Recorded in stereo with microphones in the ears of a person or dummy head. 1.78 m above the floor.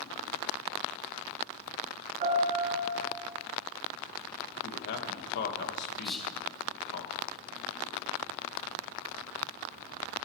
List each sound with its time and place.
2.2 s a piano: 45° right (ahead or behind), 4 m
4.6 s a man speaking: 65° left (ahead or behind), 1.5 m
6.0 s whispering: 10° left (ahead or behind), 1.7 m